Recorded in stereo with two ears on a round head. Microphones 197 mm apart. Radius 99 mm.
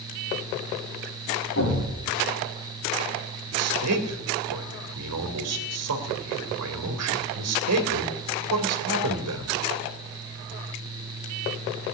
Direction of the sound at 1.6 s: 65° left (ahead or behind).